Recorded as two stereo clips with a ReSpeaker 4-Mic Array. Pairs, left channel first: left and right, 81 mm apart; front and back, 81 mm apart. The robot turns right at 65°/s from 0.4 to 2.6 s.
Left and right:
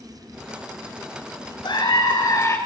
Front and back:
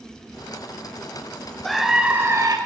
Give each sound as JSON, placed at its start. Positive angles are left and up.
{"t": 1.6, "sound": "a scream", "azimuth_deg": 80, "distance_m": 4.0}